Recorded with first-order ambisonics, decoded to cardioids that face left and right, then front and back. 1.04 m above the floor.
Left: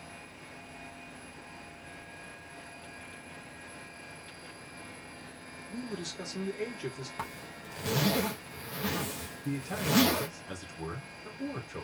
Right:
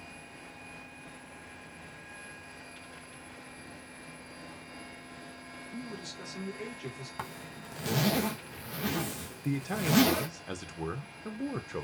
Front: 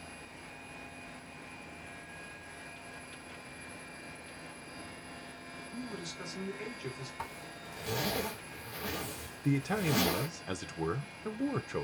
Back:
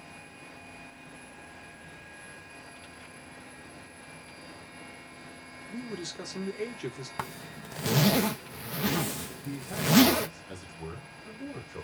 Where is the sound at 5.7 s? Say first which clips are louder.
Left 4 dB, back 5 dB; 160° left, 1.2 m.